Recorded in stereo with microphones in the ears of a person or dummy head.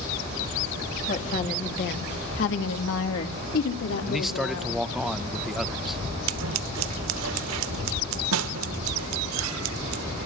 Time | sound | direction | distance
1.1 | a woman speaking | 40° left (ahead or behind) | 3 m
4.1 | a man speaking | centre (ahead or behind) | 0.8 m
6.3 | scissors | 80° right | 1.0 m